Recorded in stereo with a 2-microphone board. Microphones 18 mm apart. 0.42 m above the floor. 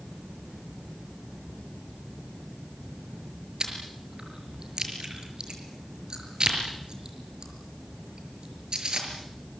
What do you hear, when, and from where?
3.6 s chewing: 50° right (ahead or behind), 6 m